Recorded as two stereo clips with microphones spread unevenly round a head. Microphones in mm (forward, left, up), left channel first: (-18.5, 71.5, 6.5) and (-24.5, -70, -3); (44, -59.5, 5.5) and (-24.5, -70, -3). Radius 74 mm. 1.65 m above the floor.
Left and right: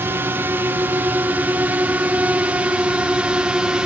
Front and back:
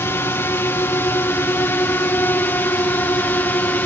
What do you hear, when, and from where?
0.0 s a drone: 25° right; by 3.9 s 15° right